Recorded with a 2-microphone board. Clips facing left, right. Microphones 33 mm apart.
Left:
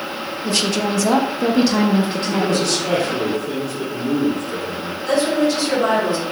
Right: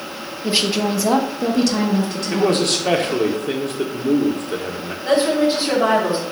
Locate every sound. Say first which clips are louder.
0.4 s a woman speaking: right 1 dB; 20° right (ahead or behind), 1.2 m; by 2.6 s 40° left (ahead or behind), 1.3 m
2.3 s a man speaking: right 3 dB; 60° right (ahead or behind), 1.5 m
5.0 s a woman speaking: right 1 dB; 30° right (ahead or behind), 4.5 m